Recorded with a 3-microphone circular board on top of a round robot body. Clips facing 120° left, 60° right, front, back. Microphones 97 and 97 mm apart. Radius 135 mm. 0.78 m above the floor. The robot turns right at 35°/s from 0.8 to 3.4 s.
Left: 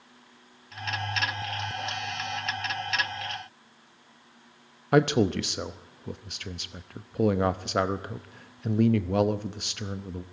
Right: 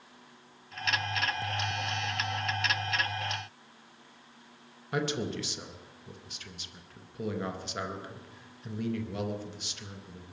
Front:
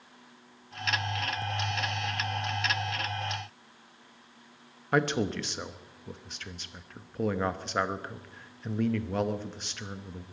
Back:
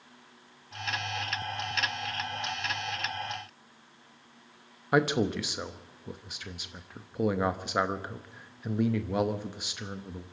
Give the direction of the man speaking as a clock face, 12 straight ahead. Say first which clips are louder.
Left 10 dB, back 2 dB; 9 o'clock.